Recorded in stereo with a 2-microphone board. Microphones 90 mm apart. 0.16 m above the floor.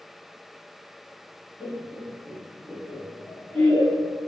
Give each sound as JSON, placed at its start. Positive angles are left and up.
{"t": 1.6, "sound": "laughter", "side_deg": -20, "distance_m": 2.5}